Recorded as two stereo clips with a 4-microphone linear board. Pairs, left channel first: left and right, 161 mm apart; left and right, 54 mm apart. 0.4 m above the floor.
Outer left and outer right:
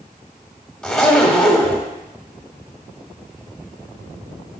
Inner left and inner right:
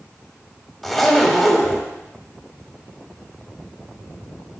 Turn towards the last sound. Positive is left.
turn(degrees=5)  # may be behind; listen again after turning